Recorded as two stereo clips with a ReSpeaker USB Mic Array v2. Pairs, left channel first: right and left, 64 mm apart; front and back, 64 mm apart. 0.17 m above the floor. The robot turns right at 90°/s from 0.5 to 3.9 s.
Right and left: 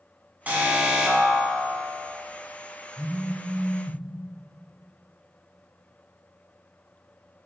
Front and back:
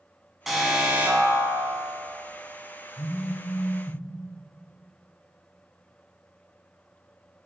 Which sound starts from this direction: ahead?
A phone buzzing, at 3.0 s.